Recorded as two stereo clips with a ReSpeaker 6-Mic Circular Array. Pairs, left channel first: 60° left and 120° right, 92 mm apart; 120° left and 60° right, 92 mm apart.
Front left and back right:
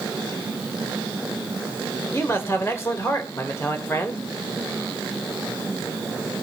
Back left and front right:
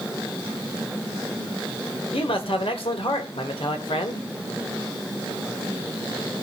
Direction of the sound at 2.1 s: 120° left.